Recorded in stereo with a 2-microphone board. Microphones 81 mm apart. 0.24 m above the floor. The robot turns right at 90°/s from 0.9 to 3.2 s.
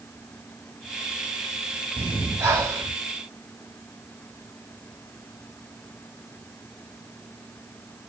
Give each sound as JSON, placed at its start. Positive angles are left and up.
{"t": 2.0, "sound": "breathing", "azimuth_deg": -155, "distance_m": 1.0}